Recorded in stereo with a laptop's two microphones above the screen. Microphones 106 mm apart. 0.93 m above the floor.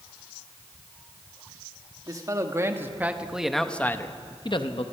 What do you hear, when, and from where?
2.1 s a man speaking: 35° right (ahead or behind), 1.6 m; by 4.8 s 60° left (ahead or behind), 0.9 m